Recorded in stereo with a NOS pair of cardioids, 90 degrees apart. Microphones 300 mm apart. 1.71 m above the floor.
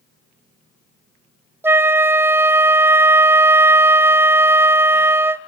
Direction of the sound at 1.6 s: 5° right.